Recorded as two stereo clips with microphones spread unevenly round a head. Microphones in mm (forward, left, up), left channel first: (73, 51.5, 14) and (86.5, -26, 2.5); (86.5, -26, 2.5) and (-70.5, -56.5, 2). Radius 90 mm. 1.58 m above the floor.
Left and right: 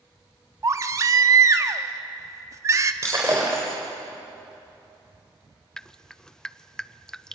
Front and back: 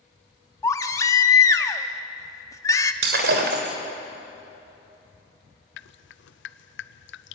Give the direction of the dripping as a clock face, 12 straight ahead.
11 o'clock.